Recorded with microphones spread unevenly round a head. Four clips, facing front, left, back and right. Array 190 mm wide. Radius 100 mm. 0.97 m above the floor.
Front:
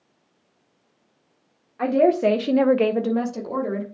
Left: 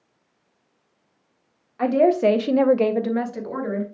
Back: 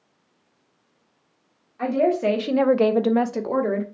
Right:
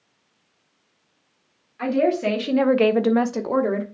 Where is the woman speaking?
55° left, 1.5 m; by 3.8 s 140° right, 1.5 m.